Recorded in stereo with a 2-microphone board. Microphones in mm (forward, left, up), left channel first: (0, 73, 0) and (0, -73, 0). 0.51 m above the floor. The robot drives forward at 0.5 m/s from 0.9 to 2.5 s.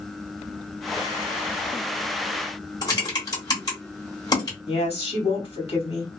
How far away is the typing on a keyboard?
About 1.7 m.